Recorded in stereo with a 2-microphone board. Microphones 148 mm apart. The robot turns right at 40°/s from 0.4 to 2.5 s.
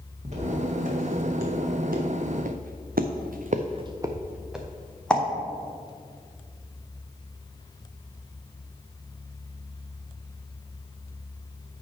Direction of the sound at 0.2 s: 55° right (ahead or behind).